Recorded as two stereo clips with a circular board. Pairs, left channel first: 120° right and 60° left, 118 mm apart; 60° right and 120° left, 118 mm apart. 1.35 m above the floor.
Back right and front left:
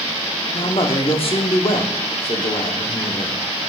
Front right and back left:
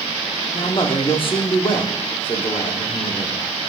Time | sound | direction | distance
0.5 | a man speaking | 95° right | 0.9 m